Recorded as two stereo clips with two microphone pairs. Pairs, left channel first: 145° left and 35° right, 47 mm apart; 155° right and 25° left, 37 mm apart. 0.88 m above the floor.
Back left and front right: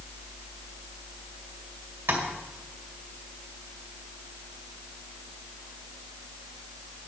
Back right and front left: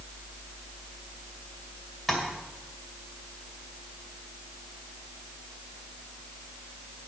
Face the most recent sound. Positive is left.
turn(degrees=-60)